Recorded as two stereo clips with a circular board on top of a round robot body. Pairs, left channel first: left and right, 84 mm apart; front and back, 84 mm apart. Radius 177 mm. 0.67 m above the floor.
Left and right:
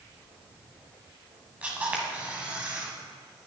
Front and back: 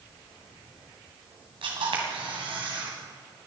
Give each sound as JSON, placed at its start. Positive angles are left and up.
{"t": 1.6, "sound": "a camera shutter", "azimuth_deg": -165, "distance_m": 2.0}